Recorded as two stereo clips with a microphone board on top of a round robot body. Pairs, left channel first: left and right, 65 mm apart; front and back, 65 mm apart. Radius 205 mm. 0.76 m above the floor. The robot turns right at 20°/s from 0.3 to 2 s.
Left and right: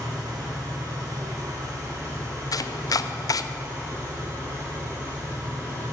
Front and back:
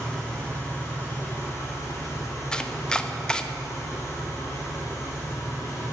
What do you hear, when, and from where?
0.0 s an engine running: 75° right, 3 m; by 5.9 s 45° right, 3 m
2.5 s chopping: 75° left, 0.5 m